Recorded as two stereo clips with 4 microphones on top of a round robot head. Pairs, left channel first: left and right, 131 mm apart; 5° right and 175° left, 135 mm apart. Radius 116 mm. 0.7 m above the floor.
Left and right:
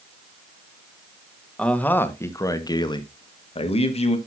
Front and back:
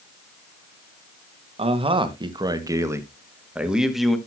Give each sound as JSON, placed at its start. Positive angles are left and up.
{"t": 1.6, "sound": "a man speaking", "azimuth_deg": 170, "distance_m": 1.4}